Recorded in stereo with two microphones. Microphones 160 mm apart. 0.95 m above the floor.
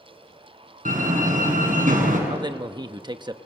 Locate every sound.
0.8 s a door slam: 60° right (ahead or behind), 6.5 m
2.3 s a man speaking: 30° right (ahead or behind), 1.0 m